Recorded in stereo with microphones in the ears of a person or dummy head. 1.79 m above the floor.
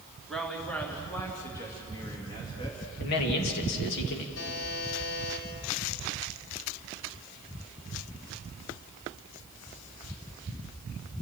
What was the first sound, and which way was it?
A woman speaking, 5° right (ahead or behind).